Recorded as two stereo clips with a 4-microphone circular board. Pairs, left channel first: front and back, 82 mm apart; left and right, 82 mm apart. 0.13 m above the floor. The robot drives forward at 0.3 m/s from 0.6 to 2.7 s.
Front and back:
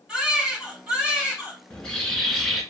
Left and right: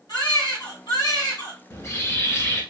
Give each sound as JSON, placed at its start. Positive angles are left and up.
{"t": 0.1, "sound": "a baby crying", "azimuth_deg": 100, "distance_m": 2.5}
{"t": 1.7, "sound": "a bird", "azimuth_deg": 70, "distance_m": 1.2}